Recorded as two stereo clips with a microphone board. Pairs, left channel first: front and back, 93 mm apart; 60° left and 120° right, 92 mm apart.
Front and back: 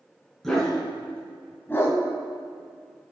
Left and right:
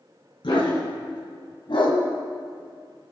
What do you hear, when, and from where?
0.4 s a dog barking: 85° left, 4 m; by 2.0 s 55° left, 2.5 m